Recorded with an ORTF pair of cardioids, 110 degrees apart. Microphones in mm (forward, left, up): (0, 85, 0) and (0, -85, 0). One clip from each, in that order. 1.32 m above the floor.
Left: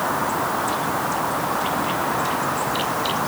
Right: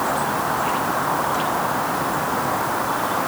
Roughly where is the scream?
I don't hear a scream.